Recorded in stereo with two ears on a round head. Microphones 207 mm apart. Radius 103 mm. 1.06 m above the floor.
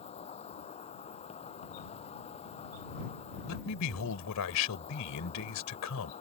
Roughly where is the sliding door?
No sliding door in this recording.